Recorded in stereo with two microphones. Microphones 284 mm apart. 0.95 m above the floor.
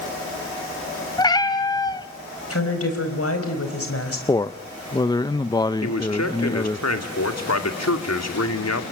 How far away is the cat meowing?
About 1.6 m.